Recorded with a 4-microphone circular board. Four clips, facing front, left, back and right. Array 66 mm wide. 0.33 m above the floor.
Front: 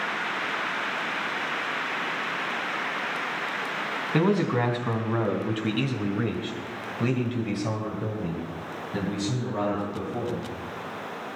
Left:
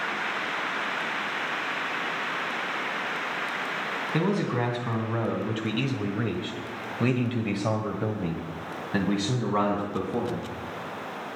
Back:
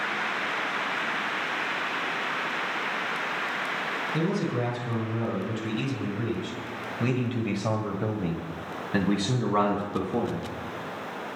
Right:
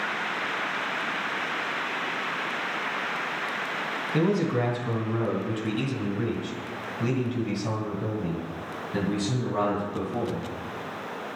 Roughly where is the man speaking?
Ahead.